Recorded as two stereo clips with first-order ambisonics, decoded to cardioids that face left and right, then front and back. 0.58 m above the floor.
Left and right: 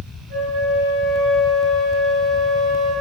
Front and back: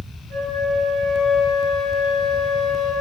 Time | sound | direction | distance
0.3 | a flute | 120° right | 0.7 m